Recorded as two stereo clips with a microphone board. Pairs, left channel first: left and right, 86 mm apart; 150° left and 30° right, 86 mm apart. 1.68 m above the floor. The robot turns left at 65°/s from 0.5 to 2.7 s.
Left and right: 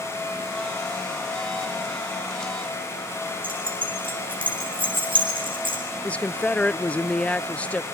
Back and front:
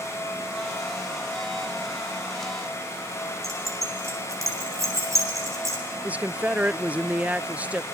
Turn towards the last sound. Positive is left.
turn(degrees=30)